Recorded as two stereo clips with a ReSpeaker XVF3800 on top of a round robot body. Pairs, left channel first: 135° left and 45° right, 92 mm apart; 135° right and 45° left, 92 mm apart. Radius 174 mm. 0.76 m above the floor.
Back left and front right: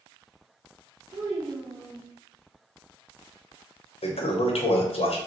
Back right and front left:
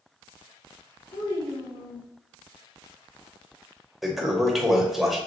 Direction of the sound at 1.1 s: 110° right.